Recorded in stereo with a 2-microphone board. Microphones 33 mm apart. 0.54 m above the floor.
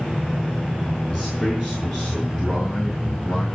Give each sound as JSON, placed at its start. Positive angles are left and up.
{"t": 1.1, "sound": "a man speaking", "side_deg": 40, "distance_m": 6.5}